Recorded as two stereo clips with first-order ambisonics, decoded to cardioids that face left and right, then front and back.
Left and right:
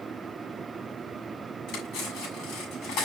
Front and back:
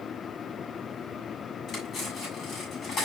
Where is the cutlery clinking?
55° left, 6 m.